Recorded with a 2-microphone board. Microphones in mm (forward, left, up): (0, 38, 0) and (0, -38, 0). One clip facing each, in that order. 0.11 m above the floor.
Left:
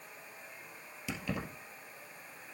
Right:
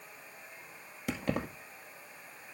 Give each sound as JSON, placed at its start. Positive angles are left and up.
{"t": 1.1, "sound": "keys jangling", "side_deg": -50, "distance_m": 1.9}